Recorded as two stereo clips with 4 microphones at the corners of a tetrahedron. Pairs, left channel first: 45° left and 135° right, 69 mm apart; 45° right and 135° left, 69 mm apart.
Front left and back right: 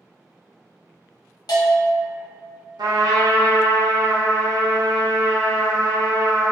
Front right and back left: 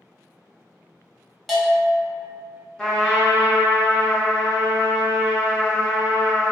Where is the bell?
50° left, 0.9 m.